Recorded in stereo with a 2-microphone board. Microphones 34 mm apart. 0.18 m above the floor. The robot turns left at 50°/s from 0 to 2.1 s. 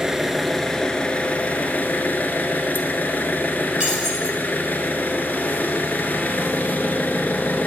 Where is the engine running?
165° right, 0.8 m; by 7.7 s 90° left, 0.8 m.